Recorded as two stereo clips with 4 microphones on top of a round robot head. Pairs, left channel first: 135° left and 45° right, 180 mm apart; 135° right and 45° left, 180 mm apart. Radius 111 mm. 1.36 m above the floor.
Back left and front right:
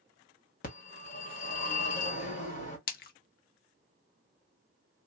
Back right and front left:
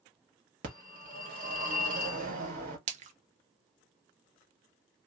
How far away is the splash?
About 0.5 m.